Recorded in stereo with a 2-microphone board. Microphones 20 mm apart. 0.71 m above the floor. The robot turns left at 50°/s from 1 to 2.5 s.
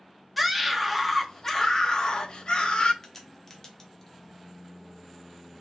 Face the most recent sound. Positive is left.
turn(degrees=25)  # may be behind; listen again after turning